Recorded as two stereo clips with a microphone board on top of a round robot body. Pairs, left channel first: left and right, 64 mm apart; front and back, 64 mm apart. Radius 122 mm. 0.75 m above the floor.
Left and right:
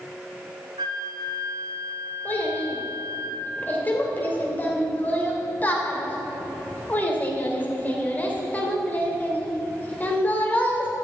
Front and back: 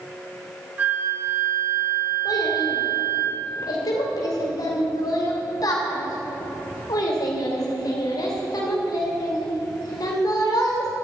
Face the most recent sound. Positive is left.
turn(degrees=25)